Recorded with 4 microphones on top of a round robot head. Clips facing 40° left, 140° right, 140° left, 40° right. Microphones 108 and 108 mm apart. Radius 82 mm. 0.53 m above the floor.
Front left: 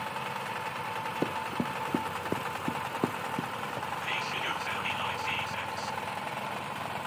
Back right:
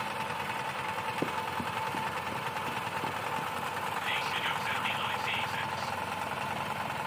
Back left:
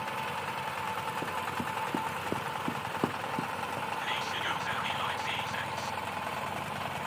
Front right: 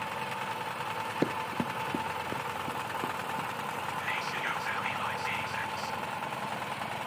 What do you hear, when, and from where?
1.2 s running footsteps: 35° right, 0.6 m; by 3.9 s 85° left, 1.8 m
4.0 s whispering: 65° left, 1.2 m